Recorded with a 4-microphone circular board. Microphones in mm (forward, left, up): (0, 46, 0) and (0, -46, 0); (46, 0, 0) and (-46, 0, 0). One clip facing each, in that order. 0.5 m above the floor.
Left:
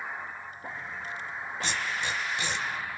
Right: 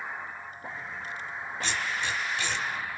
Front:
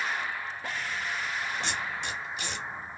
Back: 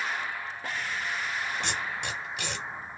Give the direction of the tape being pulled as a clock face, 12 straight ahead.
7 o'clock.